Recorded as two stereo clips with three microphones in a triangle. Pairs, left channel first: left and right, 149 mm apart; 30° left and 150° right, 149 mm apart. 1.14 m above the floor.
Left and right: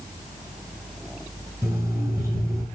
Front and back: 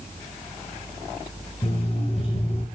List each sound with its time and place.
1.6 s an alarm clock: 20° right, 7 m